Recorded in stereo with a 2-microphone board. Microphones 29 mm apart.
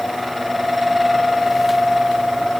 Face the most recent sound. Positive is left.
No sound to turn to.